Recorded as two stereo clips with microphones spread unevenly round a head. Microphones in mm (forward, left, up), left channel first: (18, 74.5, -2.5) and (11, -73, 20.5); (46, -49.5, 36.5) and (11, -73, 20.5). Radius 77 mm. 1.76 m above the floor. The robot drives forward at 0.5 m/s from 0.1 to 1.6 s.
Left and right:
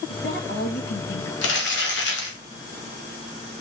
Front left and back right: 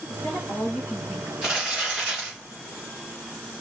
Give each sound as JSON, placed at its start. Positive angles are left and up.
{"t": 0.1, "sound": "a woman speaking", "azimuth_deg": 65, "distance_m": 3.0}
{"t": 1.4, "sound": "crumpling", "azimuth_deg": 105, "distance_m": 2.0}